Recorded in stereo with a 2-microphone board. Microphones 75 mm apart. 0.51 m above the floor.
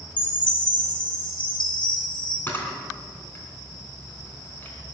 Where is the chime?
75° left (ahead or behind), 4.5 m.